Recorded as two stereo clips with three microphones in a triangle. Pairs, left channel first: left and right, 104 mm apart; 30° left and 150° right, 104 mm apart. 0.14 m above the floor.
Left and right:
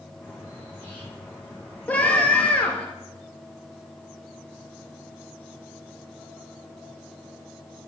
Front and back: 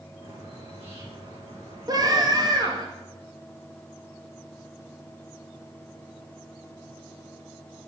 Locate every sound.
0.2 s a bird: 165° right, 5 m
1.9 s a scream: 165° left, 3 m